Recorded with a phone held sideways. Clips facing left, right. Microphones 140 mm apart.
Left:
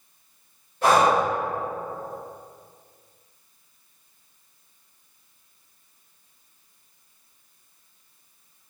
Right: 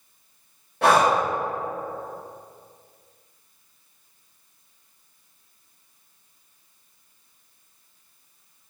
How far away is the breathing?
About 1.3 m.